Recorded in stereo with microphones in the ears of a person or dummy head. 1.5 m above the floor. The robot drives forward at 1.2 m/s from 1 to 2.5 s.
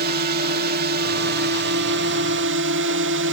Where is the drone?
55° right (ahead or behind); by 3.3 s 65° right (ahead or behind).